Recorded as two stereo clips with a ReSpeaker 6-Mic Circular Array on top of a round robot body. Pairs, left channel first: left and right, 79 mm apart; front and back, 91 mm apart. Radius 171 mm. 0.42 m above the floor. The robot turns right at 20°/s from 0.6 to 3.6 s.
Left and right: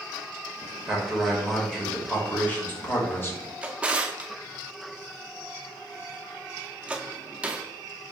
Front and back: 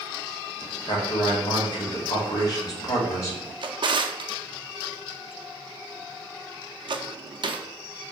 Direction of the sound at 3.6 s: 165° right.